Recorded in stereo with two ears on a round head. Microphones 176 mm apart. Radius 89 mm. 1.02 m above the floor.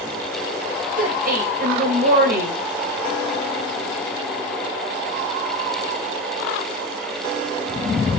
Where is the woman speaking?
50° right (ahead or behind), 5.5 m.